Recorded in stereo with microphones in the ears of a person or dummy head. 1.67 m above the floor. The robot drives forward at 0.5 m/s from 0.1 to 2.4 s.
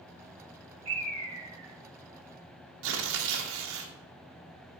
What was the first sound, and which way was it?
A bird, 35° right (ahead or behind).